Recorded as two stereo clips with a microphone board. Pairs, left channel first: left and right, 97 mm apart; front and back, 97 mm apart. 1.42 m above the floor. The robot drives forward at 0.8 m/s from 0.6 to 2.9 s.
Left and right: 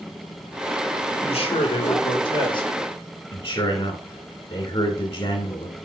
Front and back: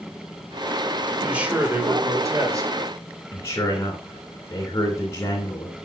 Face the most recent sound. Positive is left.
turn(degrees=60)